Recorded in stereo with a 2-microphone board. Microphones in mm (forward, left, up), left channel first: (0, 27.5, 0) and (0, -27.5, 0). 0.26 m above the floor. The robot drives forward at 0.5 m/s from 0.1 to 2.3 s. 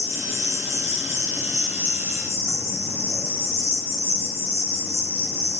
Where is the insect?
60° left (ahead or behind), 2 m; by 5.6 s 40° left (ahead or behind), 3 m.